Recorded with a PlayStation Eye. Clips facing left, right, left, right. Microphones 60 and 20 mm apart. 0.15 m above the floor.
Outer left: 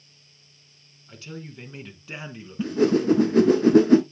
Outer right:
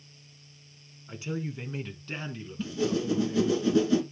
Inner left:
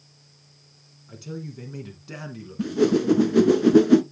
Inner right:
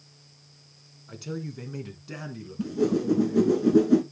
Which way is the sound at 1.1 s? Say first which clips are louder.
Outer right 5 dB, inner right 1 dB; 20° right (ahead or behind).